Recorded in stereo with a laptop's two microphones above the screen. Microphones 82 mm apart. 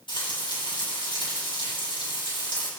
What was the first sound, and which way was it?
Frying, 75° left (ahead or behind).